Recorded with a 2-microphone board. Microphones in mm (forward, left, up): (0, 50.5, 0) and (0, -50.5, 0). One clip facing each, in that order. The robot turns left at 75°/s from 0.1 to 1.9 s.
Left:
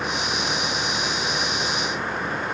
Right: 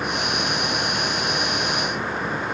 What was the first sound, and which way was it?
Only background noise.